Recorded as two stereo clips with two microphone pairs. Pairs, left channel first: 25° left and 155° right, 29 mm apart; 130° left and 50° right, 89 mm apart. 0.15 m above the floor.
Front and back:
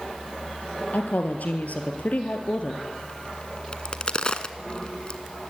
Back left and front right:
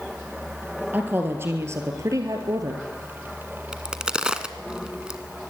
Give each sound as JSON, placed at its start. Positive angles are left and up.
{"t": 0.9, "sound": "a woman speaking", "azimuth_deg": 20, "distance_m": 2.5}
{"t": 3.7, "sound": "a crack", "azimuth_deg": 25, "distance_m": 1.1}